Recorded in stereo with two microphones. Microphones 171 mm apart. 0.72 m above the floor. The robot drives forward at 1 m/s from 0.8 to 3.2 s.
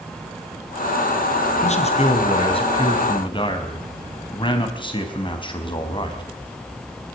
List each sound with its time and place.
1.6 s a man speaking: 40° left (ahead or behind), 3.5 m; by 6.2 s 30° left (ahead or behind), 4.5 m